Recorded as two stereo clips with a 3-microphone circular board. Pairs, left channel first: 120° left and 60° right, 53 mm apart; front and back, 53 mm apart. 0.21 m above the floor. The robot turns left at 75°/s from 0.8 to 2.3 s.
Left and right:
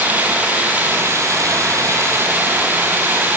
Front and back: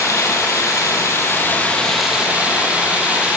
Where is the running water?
Straight ahead, 4 m; by 3.4 s 110° right, 4 m.